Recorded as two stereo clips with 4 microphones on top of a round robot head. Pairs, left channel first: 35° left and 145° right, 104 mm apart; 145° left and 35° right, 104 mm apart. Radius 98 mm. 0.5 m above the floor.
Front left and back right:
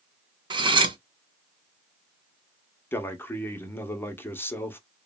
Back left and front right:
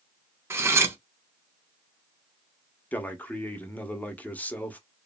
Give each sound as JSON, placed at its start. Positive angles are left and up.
{"t": 0.5, "sound": "cutlery clinking", "azimuth_deg": -100, "distance_m": 0.6}
{"t": 2.9, "sound": "a man speaking", "azimuth_deg": 85, "distance_m": 0.8}